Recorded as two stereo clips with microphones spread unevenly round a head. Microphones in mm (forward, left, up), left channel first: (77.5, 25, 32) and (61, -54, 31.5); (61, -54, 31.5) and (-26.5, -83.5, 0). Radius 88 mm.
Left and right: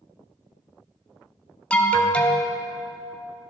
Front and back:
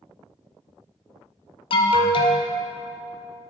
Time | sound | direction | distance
1.7 | an alarm | 10° left | 0.8 m